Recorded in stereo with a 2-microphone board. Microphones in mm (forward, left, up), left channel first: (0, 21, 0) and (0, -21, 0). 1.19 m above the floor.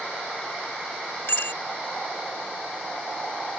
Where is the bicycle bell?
70° left (ahead or behind).